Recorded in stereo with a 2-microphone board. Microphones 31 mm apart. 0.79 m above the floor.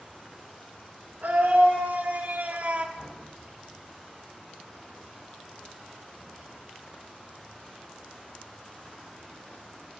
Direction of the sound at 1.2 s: 65° right (ahead or behind).